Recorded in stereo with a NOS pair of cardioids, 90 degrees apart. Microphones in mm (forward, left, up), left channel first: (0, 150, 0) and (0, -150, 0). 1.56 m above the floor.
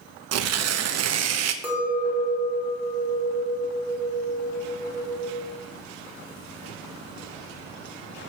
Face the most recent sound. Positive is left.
turn(degrees=-5)